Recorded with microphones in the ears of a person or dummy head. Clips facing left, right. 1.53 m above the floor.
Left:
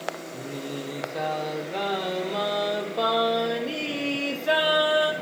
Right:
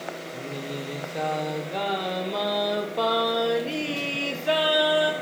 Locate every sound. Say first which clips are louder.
0.3 s singing: even; centre (ahead or behind), 1.1 m